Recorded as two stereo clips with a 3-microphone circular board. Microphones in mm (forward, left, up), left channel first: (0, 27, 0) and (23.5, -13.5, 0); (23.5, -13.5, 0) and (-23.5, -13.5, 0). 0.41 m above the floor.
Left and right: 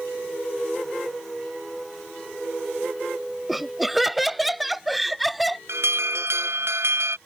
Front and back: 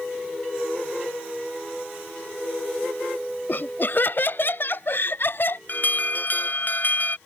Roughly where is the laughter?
Ahead left.